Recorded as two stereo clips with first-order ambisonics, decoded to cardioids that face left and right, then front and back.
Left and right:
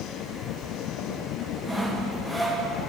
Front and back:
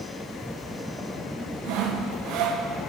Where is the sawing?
Straight behind, 0.5 m.